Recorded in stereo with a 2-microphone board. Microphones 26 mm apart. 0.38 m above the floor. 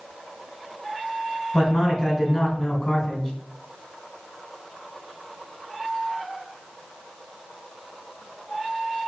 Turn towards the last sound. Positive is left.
turn(degrees=10)  # may be behind; listen again after turning